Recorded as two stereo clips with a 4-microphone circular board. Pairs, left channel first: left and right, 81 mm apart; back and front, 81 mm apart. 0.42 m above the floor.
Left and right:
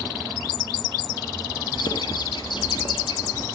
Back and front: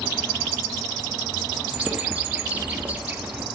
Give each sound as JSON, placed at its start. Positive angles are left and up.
{"t": 1.8, "sound": "a bird", "azimuth_deg": 70, "distance_m": 1.8}